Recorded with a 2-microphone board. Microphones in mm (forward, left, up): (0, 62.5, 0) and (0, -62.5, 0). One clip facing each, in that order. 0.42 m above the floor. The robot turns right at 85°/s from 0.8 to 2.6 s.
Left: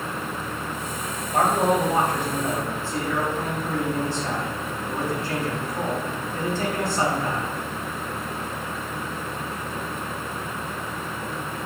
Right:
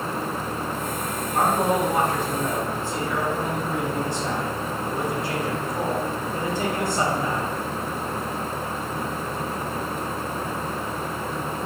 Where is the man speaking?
90° left, 1.9 m; by 7.5 s 160° right, 1.9 m.